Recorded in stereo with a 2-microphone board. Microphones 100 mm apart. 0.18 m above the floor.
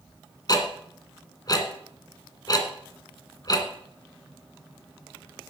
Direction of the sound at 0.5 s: 40° left (ahead or behind).